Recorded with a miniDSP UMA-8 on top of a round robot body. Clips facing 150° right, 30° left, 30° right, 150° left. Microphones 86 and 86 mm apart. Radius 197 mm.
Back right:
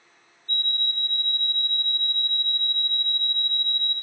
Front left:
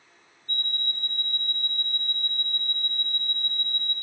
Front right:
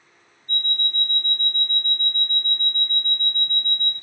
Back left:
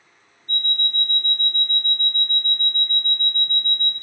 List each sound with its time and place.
0.5 s an alarm clock: 100° left, 0.6 m